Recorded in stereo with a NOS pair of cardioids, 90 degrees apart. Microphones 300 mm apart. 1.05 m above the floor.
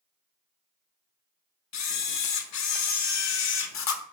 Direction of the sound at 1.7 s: 60° left.